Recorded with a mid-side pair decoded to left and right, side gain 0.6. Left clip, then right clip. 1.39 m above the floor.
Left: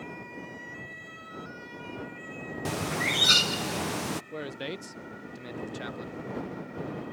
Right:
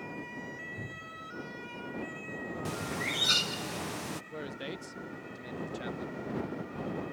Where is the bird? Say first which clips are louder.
Left 7 dB; 30° left.